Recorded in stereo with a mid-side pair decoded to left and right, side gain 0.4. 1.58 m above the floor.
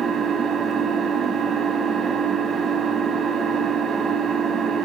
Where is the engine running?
70° right, 2 m.